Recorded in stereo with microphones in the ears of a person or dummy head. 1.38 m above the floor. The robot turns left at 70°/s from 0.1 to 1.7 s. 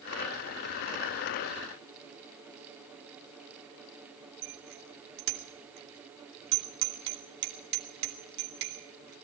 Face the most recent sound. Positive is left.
turn(degrees=-60)  # may be behind; listen again after turning